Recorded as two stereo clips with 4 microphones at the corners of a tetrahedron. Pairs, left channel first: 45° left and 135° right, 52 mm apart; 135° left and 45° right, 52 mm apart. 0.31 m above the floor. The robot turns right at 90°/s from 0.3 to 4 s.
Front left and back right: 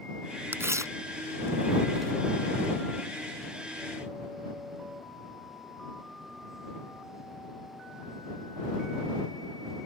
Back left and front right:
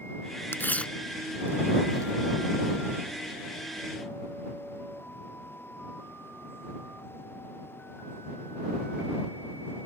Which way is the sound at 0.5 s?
175° left.